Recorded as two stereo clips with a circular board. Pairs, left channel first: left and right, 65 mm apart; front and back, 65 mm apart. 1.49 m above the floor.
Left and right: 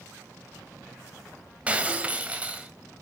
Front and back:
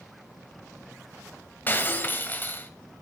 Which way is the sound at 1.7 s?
35° right.